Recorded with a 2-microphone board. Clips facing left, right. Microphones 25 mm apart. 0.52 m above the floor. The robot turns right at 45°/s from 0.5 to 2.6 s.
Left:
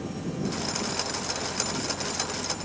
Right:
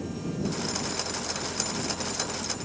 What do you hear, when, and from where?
Only background noise.